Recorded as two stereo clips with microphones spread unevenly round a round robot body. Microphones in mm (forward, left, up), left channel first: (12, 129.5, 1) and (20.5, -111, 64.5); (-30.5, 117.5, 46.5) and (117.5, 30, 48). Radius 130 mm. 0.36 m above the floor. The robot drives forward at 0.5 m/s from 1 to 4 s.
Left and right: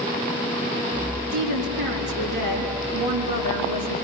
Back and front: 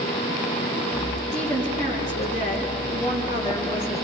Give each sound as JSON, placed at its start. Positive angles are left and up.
{"t": 1.3, "sound": "a woman speaking", "azimuth_deg": -90, "distance_m": 5.5}